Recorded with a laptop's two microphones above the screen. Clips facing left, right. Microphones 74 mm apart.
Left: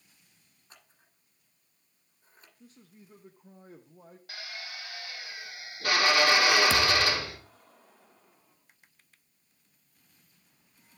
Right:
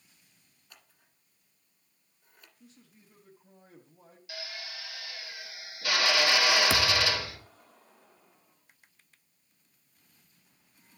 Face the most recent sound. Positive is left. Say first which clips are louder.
# left 2 dB
turn(degrees=-10)  # may be behind; listen again after turning